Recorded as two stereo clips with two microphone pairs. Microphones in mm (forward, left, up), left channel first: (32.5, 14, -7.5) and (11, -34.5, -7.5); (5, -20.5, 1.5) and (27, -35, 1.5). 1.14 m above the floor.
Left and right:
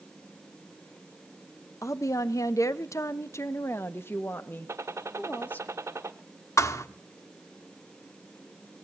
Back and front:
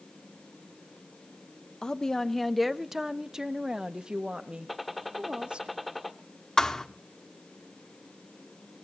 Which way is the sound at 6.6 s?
80° left.